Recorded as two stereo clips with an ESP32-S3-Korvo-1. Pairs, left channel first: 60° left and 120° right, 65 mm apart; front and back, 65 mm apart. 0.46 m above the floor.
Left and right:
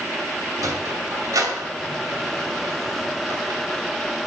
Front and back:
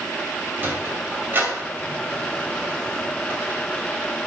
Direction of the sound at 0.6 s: 125° right.